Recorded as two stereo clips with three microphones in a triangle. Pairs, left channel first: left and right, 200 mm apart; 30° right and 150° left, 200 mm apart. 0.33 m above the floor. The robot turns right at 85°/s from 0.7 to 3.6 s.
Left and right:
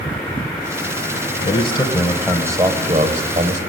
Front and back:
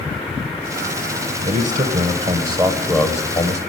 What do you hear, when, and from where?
1.4 s a man speaking: 115° left, 1.1 m; by 3.6 s 60° right, 1.1 m